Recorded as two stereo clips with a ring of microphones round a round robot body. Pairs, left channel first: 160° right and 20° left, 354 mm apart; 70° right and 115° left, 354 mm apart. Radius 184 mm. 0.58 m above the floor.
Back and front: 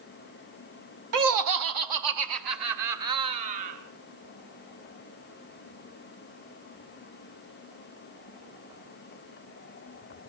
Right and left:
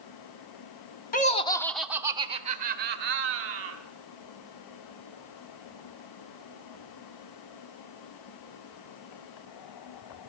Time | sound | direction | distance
1.1 | laughter | 5° right | 1.4 m